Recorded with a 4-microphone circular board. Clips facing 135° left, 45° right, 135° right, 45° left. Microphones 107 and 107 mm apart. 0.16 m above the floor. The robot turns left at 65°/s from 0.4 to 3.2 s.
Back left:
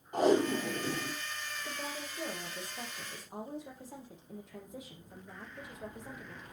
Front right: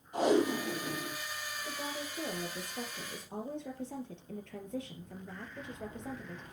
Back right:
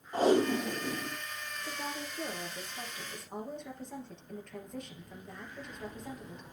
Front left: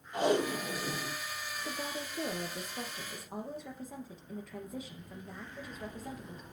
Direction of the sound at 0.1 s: 175° left.